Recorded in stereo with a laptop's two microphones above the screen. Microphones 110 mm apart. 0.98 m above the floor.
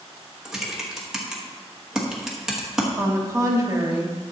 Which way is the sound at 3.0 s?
30° right (ahead or behind).